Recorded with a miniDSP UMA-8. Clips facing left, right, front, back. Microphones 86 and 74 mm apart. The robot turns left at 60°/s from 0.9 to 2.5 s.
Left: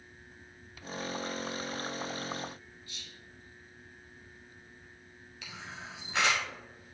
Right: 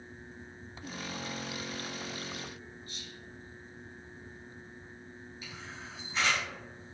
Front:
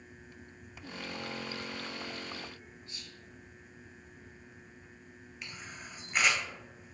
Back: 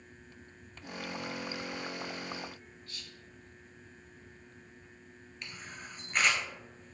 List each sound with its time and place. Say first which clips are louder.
2.9 s whispering: right 4 dB, even; 60° right, 2.5 m
5.4 s a camera shutter: left 3 dB, even; 85° left, 1.5 m